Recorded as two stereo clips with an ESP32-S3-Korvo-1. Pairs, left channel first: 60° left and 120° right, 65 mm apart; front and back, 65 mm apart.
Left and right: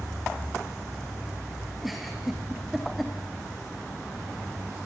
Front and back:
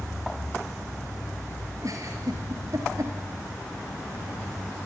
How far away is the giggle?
About 4.5 m.